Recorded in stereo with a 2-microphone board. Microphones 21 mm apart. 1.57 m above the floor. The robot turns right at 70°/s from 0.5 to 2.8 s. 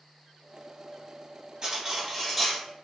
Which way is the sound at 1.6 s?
50° right.